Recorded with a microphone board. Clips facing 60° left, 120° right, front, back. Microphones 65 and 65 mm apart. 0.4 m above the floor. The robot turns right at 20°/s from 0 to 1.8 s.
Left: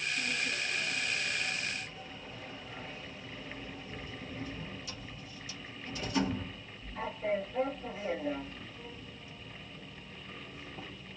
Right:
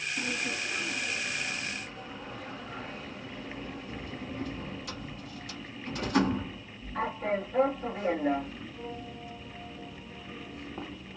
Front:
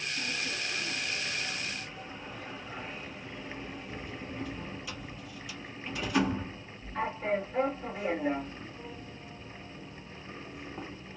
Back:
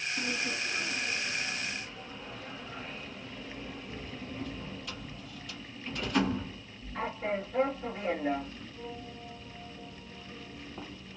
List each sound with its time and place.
0.2 s a sliding door: 120° right, 1.1 m; by 11.2 s 85° right, 1.1 m